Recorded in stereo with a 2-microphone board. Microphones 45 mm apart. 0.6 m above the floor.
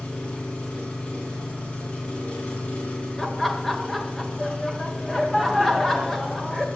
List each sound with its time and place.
0.0 s an engine running: 30° left (ahead or behind), 4 m
3.2 s laughter: 5° left (ahead or behind), 2 m